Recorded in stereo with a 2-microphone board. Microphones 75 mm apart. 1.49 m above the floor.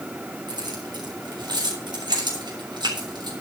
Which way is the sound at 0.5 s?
85° right.